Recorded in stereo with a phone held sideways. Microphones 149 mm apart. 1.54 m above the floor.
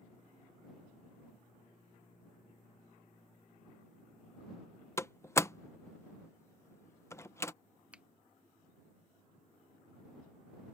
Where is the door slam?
20° left (ahead or behind).